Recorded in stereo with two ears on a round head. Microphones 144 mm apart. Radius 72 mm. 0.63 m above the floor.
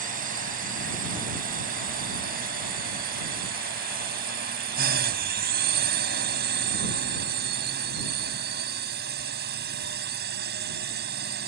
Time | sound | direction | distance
0.0 | a drone | 60° right (ahead or behind) | ?